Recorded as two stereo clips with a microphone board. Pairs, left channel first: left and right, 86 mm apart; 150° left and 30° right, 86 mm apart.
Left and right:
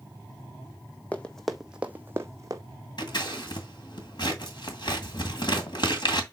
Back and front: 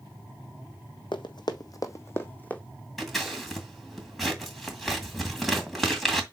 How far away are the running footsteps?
About 1.1 m.